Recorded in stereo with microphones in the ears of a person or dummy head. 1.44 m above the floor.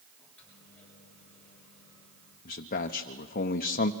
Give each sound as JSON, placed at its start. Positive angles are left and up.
{"t": 0.2, "sound": "a microwave", "side_deg": 5, "distance_m": 8.0}
{"t": 2.5, "sound": "a man speaking", "side_deg": 40, "distance_m": 0.8}